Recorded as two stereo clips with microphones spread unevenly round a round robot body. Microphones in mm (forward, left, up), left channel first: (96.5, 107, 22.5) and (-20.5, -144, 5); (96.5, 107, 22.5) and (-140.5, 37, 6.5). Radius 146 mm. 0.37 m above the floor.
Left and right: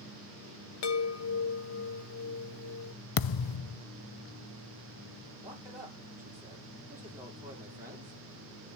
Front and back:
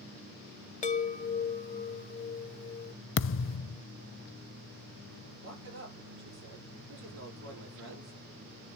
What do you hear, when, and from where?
0.8 s a chime: 70° left, 1.8 m
3.2 s a thud: 60° left, 0.6 m
5.4 s a man speaking: 160° left, 8 m